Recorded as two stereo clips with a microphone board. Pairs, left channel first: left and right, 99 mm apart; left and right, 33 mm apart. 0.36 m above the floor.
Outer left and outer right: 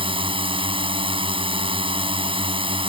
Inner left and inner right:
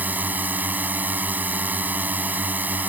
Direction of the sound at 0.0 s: 65° right (ahead or behind).